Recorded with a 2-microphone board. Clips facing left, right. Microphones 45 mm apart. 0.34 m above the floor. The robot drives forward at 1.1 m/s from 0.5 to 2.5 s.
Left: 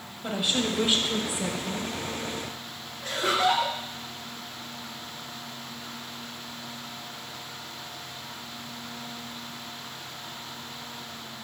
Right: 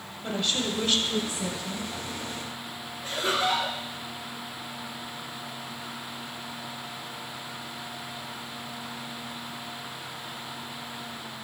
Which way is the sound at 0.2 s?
15° left (ahead or behind).